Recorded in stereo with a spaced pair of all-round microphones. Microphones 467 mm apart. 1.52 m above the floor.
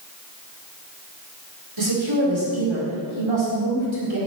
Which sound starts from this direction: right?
A woman speaking, at 1.8 s.